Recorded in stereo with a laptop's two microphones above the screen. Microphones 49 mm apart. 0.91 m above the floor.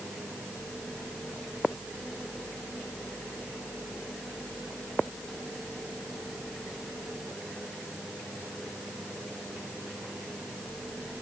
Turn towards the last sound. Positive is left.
No sound to turn to.